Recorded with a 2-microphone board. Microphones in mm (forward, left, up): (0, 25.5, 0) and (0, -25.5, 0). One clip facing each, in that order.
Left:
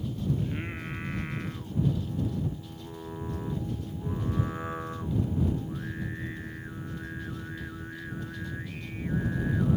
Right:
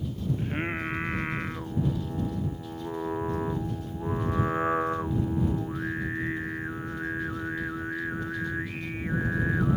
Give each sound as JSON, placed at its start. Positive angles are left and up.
{"t": 0.4, "sound": "singing", "side_deg": -35}